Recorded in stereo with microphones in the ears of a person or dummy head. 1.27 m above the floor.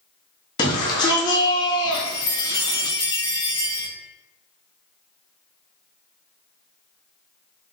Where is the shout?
20° left (ahead or behind), 0.6 m.